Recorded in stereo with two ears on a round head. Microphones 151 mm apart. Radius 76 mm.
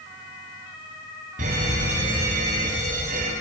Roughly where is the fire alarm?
Right.